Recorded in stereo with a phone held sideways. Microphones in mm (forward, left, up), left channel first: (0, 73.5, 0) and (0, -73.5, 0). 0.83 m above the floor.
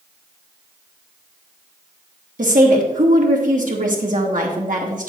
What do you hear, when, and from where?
2.4 s a woman speaking: 65° right (ahead or behind), 1.8 m